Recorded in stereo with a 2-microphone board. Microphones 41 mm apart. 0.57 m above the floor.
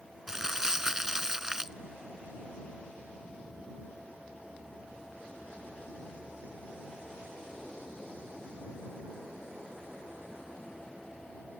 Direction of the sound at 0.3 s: 10° right (ahead or behind).